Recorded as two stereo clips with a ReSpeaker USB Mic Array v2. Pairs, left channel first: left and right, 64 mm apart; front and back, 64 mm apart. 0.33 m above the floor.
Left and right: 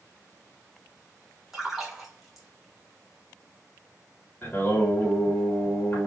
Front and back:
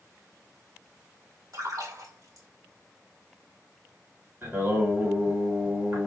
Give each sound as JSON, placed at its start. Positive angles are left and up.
{"t": 1.5, "sound": "a splash", "azimuth_deg": -175, "distance_m": 1.7}
{"t": 4.4, "sound": "singing", "azimuth_deg": 140, "distance_m": 2.0}